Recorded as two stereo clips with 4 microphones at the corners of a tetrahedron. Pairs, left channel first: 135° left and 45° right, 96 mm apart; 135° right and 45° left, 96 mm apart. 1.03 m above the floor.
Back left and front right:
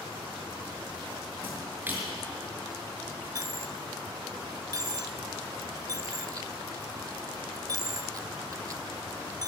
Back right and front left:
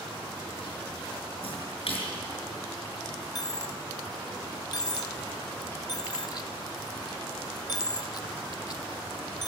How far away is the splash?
About 6 m.